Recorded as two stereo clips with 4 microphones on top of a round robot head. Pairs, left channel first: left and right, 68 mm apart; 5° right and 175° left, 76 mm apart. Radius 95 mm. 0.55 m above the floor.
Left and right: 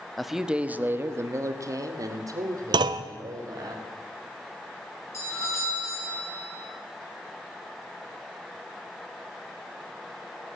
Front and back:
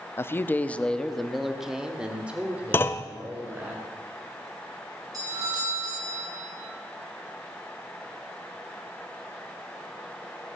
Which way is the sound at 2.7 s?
70° right.